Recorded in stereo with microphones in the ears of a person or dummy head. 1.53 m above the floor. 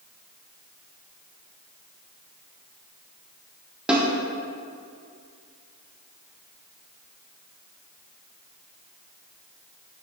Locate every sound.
3.9 s a snare drum: 5° right (ahead or behind), 1.2 m